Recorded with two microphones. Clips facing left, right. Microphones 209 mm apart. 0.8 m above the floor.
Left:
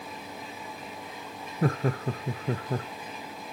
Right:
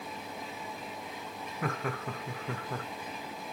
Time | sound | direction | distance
1.6 | laughter | 35° left (ahead or behind) | 0.8 m